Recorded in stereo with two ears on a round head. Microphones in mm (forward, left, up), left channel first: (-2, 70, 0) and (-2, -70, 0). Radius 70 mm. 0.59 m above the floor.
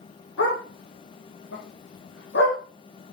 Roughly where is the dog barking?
Left.